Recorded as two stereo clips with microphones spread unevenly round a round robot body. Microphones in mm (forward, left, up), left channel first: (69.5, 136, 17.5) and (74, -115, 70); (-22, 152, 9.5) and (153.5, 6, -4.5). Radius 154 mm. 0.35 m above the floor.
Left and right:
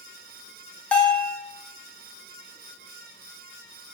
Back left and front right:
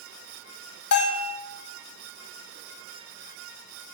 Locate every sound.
0.9 s a bell: 175° left, 0.7 m